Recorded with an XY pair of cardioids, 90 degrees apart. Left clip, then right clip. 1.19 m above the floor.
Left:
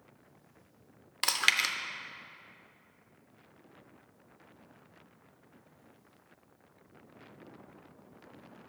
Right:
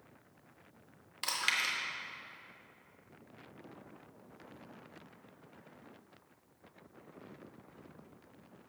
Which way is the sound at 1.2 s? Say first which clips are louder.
Left 5 dB; 60° left.